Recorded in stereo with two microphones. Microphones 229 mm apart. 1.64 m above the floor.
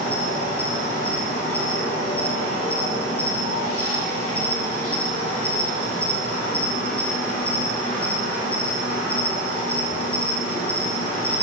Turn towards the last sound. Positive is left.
turn(degrees=70)  # may be behind; listen again after turning